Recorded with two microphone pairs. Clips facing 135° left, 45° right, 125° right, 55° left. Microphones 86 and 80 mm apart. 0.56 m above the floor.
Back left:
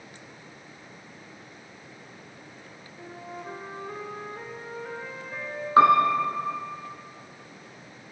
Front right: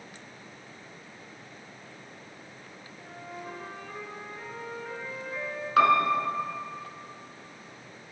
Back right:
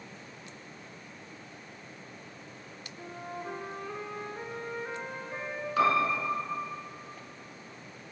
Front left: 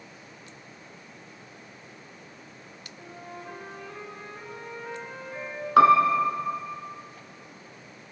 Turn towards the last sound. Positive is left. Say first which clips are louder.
# back left 4 dB, front left 9 dB
turn(degrees=75)